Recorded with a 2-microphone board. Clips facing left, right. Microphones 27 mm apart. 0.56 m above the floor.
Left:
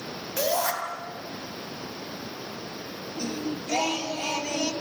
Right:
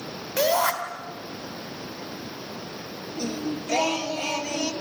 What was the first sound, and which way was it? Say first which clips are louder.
A shout: right 4 dB; 20° right (ahead or behind).